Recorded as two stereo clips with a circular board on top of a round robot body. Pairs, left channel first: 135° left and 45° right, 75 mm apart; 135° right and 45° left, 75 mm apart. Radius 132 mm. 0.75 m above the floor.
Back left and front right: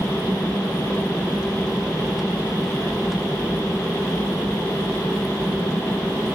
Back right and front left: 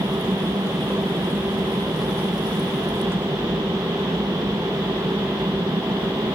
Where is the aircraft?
40° left.